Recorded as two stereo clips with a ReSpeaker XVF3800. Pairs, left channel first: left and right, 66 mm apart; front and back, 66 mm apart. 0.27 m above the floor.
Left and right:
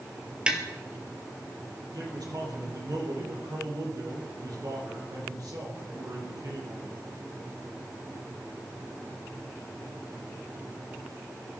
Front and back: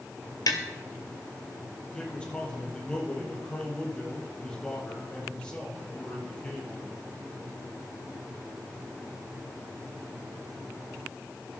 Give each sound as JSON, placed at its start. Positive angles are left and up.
{"t": 0.5, "sound": "tapping", "azimuth_deg": -15, "distance_m": 1.9}
{"t": 1.9, "sound": "a man speaking", "azimuth_deg": -75, "distance_m": 6.5}